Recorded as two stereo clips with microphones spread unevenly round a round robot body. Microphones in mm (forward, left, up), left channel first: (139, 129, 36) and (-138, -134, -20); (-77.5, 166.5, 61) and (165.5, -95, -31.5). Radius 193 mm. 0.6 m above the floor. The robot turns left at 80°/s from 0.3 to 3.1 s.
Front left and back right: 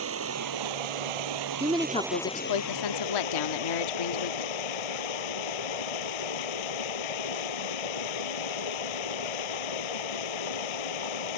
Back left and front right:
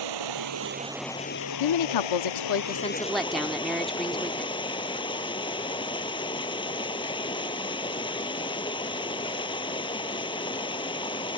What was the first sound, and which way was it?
Running water, 80° right.